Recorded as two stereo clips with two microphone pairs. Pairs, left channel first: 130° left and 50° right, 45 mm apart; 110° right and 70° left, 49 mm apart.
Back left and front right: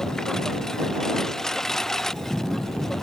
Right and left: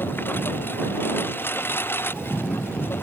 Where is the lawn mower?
150° right; by 3.0 s 145° right.